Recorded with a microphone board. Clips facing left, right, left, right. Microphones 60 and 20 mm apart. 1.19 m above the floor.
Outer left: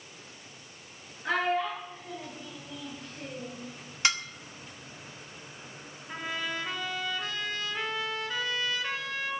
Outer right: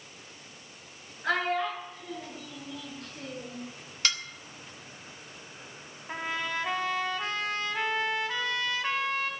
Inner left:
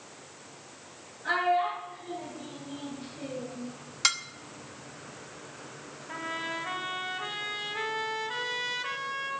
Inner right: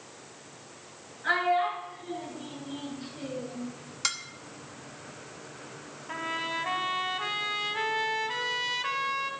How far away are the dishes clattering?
About 0.9 m.